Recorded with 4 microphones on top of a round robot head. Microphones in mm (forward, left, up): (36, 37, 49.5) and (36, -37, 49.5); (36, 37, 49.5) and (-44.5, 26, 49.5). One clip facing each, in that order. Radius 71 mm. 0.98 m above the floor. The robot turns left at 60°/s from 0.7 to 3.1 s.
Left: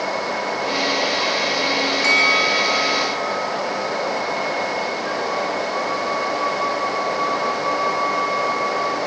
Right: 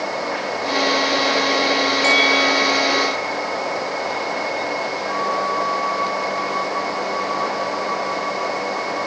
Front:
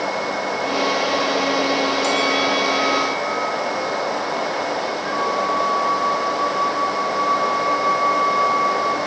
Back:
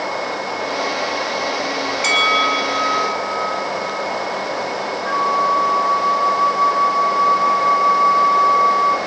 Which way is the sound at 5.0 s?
140° left.